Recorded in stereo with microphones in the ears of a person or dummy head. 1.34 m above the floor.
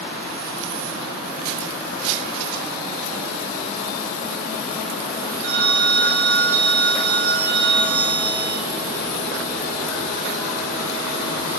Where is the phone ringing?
75° right (ahead or behind), 1.9 m.